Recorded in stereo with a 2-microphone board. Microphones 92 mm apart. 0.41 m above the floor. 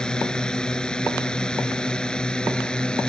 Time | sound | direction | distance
0.0 | a drone | 10° left (ahead or behind) | ?